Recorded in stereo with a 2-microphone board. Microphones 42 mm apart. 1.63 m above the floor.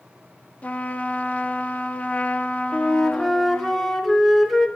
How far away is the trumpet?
About 1.0 m.